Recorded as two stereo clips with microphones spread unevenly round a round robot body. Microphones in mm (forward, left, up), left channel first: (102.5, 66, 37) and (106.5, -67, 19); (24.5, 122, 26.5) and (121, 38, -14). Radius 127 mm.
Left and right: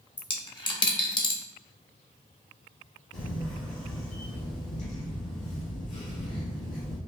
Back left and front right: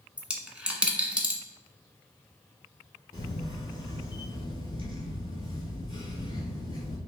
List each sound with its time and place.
0.2 s a dropped coin: 45° left, 1.1 m
3.1 s a camera shutter: 90° left, 1.8 m